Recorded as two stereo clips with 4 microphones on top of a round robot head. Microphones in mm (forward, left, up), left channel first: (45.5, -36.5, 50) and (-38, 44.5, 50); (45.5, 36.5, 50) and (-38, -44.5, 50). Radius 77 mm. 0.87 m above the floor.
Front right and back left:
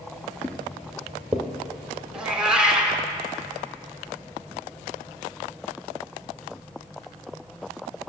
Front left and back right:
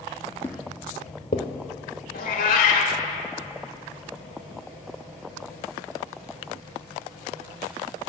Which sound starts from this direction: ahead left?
A cat meowing, at 2.1 s.